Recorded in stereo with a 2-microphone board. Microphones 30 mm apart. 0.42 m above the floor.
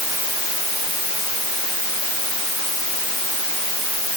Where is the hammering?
I don't hear hammering.